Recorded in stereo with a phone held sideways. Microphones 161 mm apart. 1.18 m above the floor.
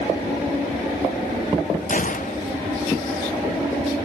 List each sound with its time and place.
1.9 s a gunshot: 55° left (ahead or behind)